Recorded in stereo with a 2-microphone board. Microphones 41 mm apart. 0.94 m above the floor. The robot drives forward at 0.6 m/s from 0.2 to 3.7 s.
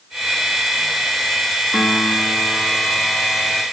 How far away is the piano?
About 1.2 m.